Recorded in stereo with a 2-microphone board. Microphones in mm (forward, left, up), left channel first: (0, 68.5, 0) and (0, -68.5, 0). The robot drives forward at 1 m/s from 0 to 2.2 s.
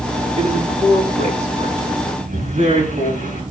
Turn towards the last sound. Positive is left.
turn(degrees=-90)